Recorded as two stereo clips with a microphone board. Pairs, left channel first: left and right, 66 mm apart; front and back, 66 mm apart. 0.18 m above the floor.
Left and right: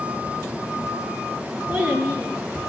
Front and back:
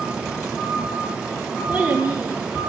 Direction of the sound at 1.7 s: 130° right.